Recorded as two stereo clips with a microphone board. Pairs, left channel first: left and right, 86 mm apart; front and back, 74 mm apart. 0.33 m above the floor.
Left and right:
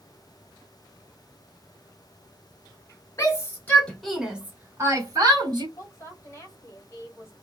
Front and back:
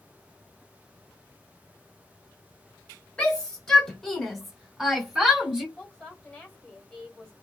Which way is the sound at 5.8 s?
65° left.